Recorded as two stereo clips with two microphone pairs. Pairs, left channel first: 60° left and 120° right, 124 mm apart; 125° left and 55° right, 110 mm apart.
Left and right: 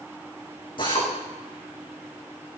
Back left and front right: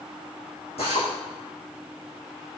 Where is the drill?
105° left, 10 m.